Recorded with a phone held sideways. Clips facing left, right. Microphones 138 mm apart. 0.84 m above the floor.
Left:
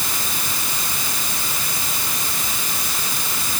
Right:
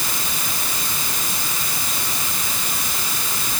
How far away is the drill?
I don't hear a drill.